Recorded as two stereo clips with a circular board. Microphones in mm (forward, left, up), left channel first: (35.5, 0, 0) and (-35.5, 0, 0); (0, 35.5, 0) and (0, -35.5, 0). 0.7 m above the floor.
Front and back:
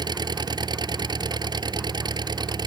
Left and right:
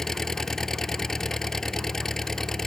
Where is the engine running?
175° left.